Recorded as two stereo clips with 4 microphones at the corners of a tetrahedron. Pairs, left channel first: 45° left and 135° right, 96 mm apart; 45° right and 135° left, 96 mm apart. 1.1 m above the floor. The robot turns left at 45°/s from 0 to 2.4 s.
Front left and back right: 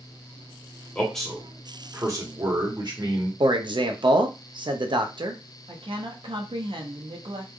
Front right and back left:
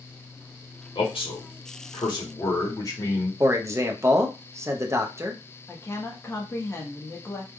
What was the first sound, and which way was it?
A man speaking, 30° right.